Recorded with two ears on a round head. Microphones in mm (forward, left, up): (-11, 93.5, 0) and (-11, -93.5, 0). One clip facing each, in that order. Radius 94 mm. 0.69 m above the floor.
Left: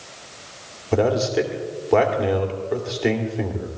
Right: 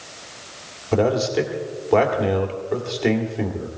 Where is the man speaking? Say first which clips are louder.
Even; centre (ahead or behind), 2 m.